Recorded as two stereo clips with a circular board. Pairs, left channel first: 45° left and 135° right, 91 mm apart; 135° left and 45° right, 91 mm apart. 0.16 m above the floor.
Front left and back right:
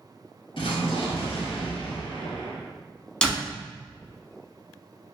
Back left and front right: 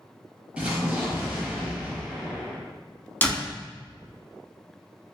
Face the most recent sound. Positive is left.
turn(degrees=110)